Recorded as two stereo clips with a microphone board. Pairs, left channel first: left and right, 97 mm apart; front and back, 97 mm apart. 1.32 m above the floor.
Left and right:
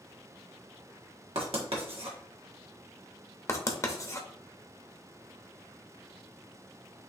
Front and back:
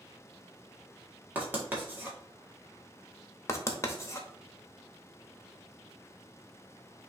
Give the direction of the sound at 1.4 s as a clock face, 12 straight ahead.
4 o'clock.